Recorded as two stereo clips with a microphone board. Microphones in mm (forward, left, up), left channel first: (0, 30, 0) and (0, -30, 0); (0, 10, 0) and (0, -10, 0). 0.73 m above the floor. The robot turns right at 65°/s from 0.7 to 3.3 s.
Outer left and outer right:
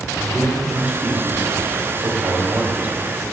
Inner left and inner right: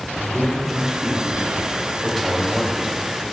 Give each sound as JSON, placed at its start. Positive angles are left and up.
{"t": 0.2, "sound": "a man speaking", "azimuth_deg": -175, "distance_m": 4.5}